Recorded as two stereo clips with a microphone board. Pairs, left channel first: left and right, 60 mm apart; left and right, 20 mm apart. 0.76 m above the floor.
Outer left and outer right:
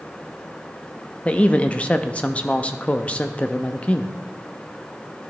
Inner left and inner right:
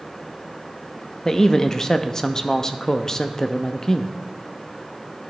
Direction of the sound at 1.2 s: 20° left (ahead or behind).